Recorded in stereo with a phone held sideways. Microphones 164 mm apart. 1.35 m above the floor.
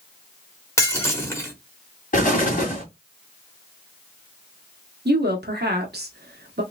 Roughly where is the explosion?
Left.